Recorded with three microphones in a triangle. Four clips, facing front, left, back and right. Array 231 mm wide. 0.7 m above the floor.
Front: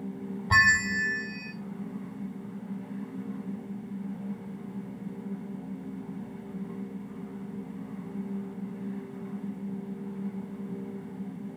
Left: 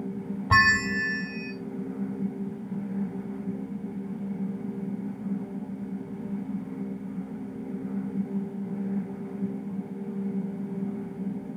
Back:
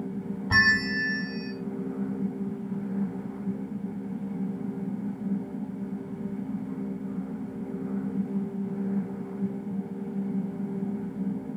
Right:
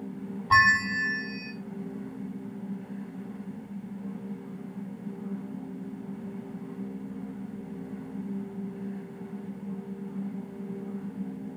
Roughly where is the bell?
Left.